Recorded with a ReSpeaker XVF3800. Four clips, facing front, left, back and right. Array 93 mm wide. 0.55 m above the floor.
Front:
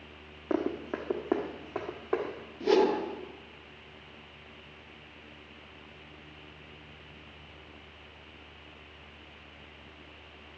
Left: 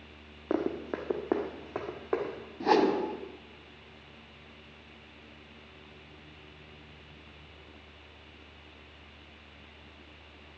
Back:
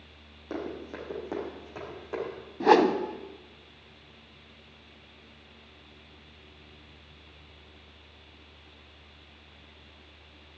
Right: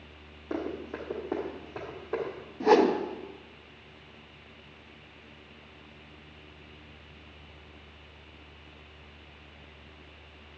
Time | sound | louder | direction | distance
0.5 | running footsteps | left 3 dB, front 5 dB | 55° left | 1.3 m
2.6 | a whoosh | right 3 dB, back 4 dB | 175° right | 0.7 m